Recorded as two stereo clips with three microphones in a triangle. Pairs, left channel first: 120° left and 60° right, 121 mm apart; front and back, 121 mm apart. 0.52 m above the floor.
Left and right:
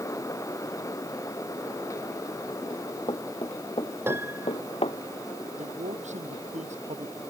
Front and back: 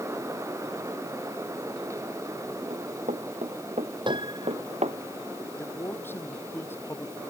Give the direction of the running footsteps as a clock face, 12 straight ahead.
6 o'clock.